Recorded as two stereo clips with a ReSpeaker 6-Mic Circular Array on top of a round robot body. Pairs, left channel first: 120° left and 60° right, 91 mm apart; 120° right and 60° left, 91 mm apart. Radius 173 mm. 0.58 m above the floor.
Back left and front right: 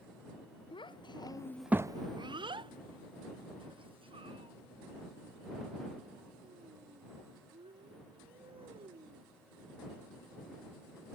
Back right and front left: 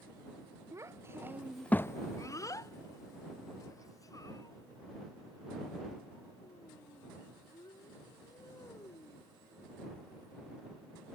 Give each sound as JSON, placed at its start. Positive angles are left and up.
{"t": 0.7, "sound": "a child speaking", "azimuth_deg": 115}